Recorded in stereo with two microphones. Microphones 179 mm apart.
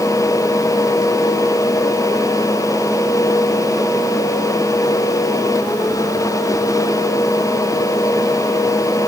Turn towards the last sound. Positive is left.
No sound to turn to.